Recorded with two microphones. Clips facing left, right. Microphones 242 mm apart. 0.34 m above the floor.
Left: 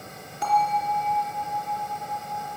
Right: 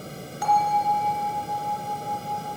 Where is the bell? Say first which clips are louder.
Right 1 dB; 25° left (ahead or behind), 3.5 m.